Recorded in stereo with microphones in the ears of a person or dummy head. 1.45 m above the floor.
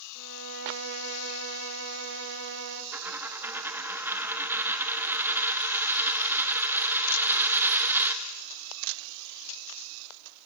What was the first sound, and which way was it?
A violin, 75° right (ahead or behind).